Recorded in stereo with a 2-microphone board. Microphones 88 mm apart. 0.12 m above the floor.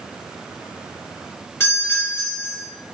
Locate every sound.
1.6 s a doorbell: 25° left (ahead or behind), 1.9 m